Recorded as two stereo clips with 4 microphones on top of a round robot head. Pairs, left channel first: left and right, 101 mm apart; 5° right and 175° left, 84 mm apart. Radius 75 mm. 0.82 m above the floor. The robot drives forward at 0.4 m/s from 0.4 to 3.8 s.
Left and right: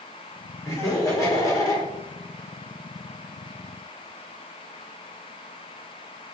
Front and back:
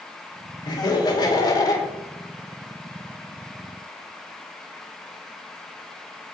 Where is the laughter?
25° left, 2.5 m; by 1.9 s 35° left, 2 m.